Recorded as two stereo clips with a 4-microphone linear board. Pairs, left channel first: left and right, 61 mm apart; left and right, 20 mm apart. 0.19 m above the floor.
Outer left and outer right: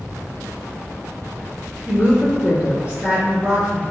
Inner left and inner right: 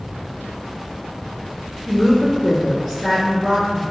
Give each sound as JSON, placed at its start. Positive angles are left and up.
{"t": 1.9, "sound": "a woman speaking", "side_deg": -25, "distance_m": 1.2}